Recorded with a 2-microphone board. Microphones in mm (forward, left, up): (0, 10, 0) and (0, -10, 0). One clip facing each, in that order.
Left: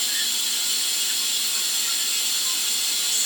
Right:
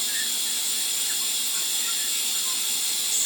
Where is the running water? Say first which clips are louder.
Left 3 dB; 60° left (ahead or behind), 1.0 m.